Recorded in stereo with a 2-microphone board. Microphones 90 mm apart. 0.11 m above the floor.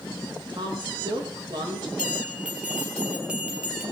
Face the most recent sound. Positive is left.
turn(degrees=-10)  # may be behind; listen again after turning